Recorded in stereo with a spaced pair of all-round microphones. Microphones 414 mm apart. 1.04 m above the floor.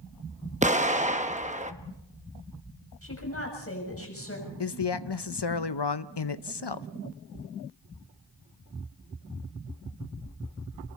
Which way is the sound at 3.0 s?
35° left (ahead or behind).